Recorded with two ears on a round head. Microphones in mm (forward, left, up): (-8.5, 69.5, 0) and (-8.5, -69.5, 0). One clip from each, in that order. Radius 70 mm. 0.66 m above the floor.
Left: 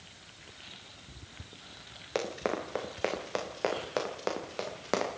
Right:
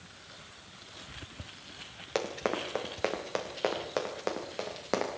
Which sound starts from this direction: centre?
Running footsteps, at 2.1 s.